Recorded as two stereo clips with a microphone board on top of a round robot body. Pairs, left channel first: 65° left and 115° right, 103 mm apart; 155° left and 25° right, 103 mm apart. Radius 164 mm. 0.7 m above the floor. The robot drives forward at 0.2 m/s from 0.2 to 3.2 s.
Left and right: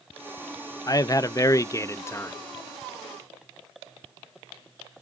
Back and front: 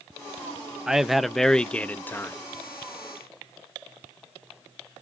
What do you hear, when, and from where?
0.9 s a man speaking: 55° left, 0.7 m; by 2.4 s 110° left, 0.7 m